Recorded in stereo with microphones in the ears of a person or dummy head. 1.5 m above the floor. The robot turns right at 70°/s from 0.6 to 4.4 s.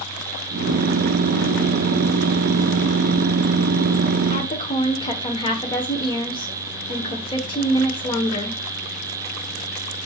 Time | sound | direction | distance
4.3 | a woman speaking | 25° left (ahead or behind) | 1.0 m